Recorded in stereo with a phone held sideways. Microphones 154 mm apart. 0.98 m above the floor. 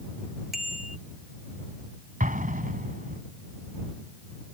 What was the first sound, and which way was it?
A bicycle bell, centre (ahead or behind).